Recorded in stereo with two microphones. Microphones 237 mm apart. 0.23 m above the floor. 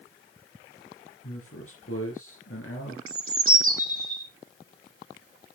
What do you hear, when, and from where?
1.2 s a man speaking: 65° left (ahead or behind), 3.5 m
3.1 s a bird: 60° right (ahead or behind), 2.5 m